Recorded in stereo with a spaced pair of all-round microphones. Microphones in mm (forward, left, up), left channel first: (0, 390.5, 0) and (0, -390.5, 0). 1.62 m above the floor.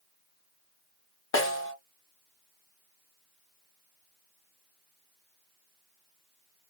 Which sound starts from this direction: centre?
A snare drum, at 1.3 s.